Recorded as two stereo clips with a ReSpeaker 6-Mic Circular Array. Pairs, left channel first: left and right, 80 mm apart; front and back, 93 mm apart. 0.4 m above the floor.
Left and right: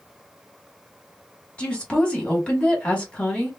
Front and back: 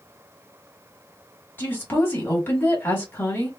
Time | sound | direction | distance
1.6 | a woman speaking | 35° left | 1.3 m